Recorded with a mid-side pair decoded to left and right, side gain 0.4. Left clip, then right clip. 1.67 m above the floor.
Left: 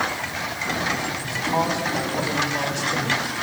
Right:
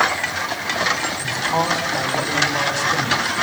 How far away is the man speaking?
About 10 m.